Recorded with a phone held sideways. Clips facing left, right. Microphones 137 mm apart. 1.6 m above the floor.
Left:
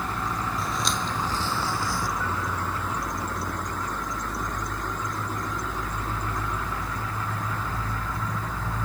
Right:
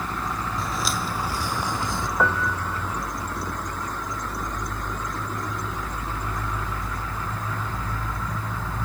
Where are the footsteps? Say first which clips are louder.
Right 1 dB; centre (ahead or behind); by 2.1 s 25° right (ahead or behind).